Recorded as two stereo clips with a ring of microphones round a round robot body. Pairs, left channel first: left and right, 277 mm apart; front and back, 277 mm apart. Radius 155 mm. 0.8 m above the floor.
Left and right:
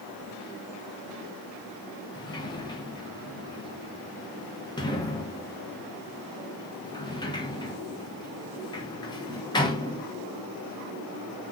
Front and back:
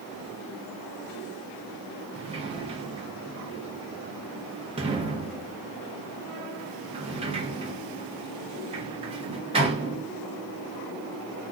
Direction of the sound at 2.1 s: 140° left.